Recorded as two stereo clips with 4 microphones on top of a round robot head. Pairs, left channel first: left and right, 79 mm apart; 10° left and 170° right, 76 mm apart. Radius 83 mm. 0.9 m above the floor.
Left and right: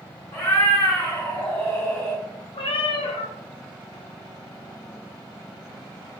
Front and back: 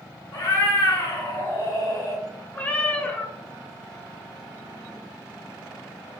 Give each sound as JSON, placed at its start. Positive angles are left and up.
{"t": 0.3, "sound": "a cat meowing", "azimuth_deg": 35, "distance_m": 1.5}
{"t": 2.5, "sound": "a cat meowing", "azimuth_deg": 80, "distance_m": 0.6}